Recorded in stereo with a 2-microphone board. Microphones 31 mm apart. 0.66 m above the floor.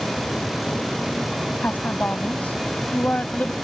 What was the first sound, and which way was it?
A woman speaking, 60° left (ahead or behind).